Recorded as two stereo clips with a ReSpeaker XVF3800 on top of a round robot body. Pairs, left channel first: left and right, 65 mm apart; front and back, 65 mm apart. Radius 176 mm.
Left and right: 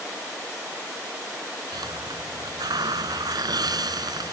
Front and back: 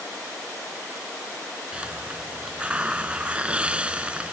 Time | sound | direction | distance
1.7 | a hiss | 105° right | ?